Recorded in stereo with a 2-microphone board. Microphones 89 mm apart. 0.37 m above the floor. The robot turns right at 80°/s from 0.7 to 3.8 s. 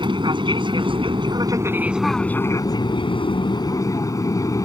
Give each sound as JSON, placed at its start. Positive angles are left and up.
{"t": 0.0, "sound": "an aircraft", "azimuth_deg": -110}